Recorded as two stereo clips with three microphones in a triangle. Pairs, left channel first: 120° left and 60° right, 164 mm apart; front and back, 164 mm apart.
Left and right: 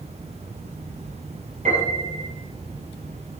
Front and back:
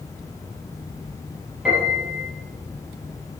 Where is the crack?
No crack in this recording.